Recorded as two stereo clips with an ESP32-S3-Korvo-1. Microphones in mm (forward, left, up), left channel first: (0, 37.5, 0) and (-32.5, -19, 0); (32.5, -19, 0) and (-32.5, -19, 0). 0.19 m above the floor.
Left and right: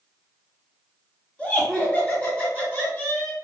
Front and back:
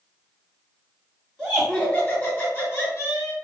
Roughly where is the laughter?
Left.